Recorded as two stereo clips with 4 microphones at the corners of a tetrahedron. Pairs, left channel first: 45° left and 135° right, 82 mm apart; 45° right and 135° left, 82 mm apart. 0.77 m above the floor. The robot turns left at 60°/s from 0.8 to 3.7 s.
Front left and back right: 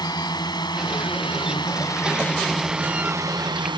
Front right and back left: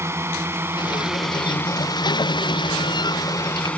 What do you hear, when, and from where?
0.0 s a drone: 80° left; by 3.8 s 120° right